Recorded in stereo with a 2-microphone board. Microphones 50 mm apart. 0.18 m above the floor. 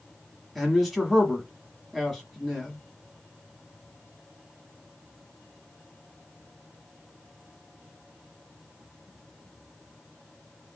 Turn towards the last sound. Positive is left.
turn(degrees=0)  # may be behind; listen again after turning